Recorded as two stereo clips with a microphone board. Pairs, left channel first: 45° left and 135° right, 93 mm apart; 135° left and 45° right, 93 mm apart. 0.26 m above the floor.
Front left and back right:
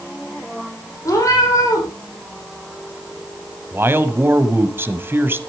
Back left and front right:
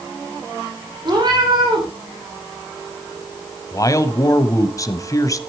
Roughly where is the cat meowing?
Ahead.